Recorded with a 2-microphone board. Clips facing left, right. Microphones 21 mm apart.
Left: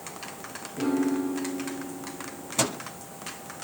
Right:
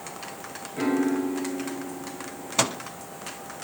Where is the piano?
70° right (ahead or behind), 4.5 m.